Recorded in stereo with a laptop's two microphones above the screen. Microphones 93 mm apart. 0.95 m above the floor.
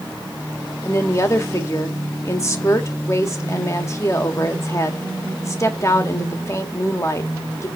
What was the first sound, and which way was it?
A woman speaking, 30° left (ahead or behind).